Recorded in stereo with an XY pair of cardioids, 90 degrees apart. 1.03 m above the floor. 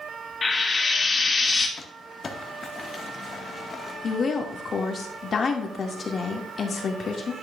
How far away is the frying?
About 1.7 m.